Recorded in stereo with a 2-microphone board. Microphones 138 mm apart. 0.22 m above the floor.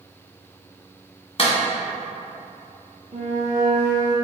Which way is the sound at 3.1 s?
55° right (ahead or behind).